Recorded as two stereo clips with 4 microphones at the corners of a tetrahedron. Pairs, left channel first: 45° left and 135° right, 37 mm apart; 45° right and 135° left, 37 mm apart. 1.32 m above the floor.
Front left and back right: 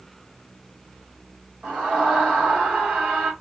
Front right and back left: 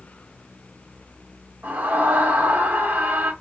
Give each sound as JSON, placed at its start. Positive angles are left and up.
{"t": 1.6, "sound": "a scream", "azimuth_deg": 170, "distance_m": 1.7}